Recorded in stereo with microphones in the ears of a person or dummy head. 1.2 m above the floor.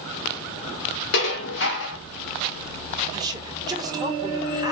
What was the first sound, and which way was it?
Dishes clattering, 55° left (ahead or behind).